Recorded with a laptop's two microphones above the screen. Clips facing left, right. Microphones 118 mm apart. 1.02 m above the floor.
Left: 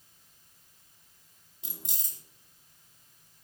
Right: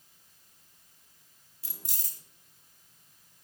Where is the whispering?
I don't hear whispering.